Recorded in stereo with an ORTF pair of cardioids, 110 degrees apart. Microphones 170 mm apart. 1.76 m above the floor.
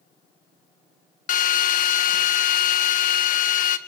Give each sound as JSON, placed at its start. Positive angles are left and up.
{"t": 1.3, "sound": "a drill", "azimuth_deg": 50, "distance_m": 1.6}